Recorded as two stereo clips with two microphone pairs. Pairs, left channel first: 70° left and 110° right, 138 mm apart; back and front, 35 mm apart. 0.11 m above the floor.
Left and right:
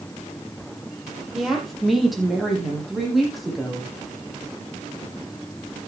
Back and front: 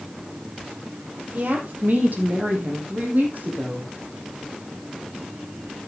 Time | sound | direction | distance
1.3 | a woman speaking | 25° right | 4 m